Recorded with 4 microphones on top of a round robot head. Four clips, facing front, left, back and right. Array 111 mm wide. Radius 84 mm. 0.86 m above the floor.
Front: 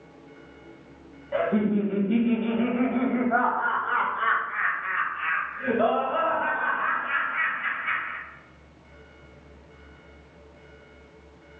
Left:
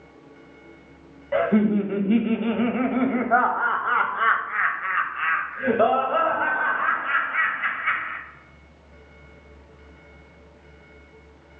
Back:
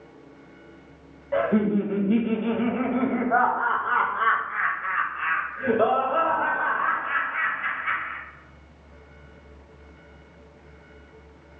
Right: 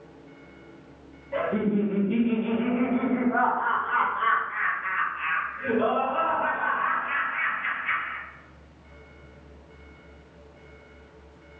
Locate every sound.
1.3 s laughter: 115° left, 1.0 m